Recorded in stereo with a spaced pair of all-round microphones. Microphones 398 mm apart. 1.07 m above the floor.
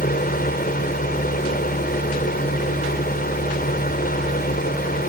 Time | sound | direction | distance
0.0 | a fan | 20° left (ahead or behind) | ?